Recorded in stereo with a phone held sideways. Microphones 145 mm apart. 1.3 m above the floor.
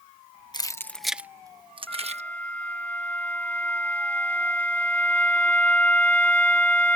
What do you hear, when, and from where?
0.5 s keys jangling: 30° left (ahead or behind); by 2.2 s 50° right (ahead or behind)
1.9 s a flute: 10° left (ahead or behind)